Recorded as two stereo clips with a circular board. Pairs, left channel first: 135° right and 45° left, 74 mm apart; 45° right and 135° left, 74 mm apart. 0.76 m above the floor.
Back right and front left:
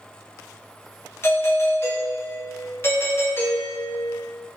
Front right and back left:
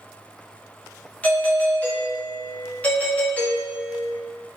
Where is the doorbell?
105° right, 2 m.